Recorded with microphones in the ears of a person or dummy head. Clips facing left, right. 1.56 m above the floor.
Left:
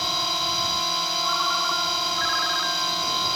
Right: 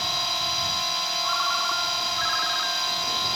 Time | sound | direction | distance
0.0 | a drone | 80° left | ?
1.2 | a ringtone | 40° left (ahead or behind) | ?